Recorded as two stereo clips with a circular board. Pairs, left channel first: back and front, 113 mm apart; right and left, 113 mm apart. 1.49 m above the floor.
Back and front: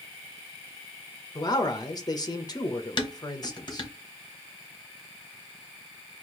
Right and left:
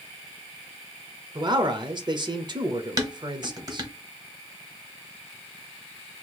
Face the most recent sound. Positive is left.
turn(degrees=140)